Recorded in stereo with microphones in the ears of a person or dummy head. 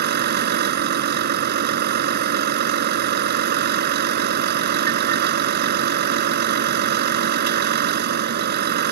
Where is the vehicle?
60° right (ahead or behind).